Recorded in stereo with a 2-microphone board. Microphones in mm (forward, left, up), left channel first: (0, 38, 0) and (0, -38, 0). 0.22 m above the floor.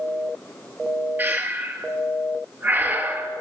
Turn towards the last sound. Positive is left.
turn(degrees=-25)  # may be behind; listen again after turning